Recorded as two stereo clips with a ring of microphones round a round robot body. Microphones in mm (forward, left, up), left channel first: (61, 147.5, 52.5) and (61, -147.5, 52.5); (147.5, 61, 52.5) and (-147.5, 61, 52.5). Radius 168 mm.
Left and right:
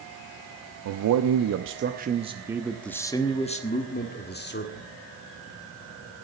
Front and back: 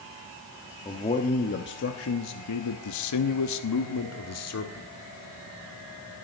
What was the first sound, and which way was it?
A man speaking, 75° right.